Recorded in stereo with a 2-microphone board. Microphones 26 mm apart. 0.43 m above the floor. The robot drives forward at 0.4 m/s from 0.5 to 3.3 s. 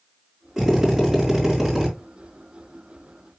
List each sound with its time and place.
0.6 s a drill: 5° right (ahead or behind), 5 m